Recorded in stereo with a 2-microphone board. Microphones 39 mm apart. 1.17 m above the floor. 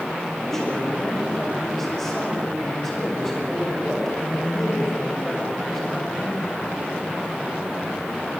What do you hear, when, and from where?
0.4 s a man speaking: 5° left (ahead or behind), 7 m